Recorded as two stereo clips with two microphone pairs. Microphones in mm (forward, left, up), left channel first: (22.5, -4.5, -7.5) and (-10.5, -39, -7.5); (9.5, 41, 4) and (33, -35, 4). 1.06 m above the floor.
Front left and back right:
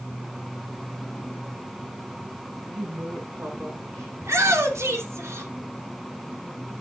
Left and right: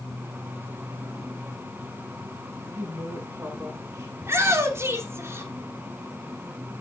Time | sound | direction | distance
2.7 | a woman speaking | 130° right | 7 m
4.2 | a shout | 125° right | 3 m